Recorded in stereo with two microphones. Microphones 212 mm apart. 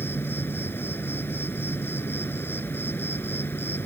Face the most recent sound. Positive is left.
turn(degrees=10)  # may be behind; listen again after turning